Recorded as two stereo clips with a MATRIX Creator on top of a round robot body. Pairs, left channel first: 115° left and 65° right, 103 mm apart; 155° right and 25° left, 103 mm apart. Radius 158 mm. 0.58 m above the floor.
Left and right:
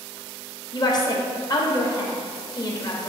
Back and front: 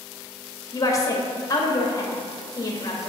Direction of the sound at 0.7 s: 155° left.